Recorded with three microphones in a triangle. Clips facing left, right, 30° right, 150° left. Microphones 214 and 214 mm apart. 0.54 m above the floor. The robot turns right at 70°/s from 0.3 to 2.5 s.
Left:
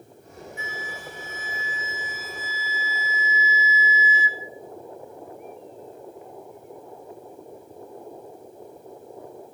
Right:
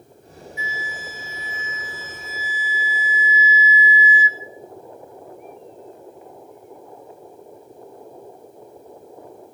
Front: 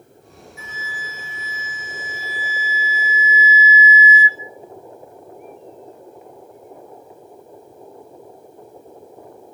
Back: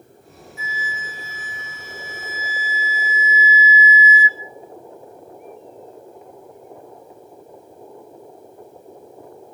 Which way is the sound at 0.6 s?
60° left.